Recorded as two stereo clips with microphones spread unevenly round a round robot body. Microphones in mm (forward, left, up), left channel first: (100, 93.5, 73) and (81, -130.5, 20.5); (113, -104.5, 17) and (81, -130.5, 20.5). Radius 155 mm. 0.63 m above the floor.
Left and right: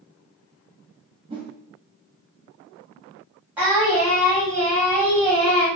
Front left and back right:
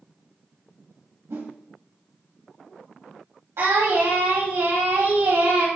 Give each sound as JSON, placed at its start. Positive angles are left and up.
{"t": 1.3, "sound": "a whoosh", "azimuth_deg": -165, "distance_m": 1.6}
{"t": 3.6, "sound": "singing", "azimuth_deg": -175, "distance_m": 3.0}